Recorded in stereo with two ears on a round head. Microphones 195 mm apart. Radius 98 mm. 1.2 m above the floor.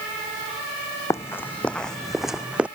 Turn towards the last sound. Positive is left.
turn(degrees=-5)  # may be behind; listen again after turning